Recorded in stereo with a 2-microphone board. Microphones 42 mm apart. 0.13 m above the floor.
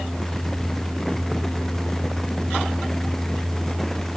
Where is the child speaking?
No child speaking in this recording.